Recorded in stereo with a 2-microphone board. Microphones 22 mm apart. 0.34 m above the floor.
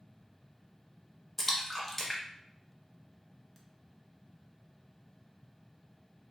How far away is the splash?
About 0.6 m.